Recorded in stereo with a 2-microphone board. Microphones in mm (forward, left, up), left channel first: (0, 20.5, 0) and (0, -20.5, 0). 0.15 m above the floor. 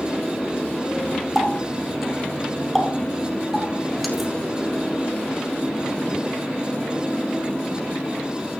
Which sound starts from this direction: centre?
A running tap, at 1.4 s.